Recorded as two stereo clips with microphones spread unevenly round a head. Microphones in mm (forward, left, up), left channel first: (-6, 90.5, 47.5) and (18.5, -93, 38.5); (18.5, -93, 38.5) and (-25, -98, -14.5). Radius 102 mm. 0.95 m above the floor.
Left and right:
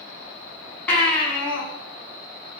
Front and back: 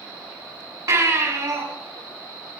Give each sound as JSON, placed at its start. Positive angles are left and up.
{"t": 0.9, "sound": "a baby crying", "azimuth_deg": 180, "distance_m": 6.0}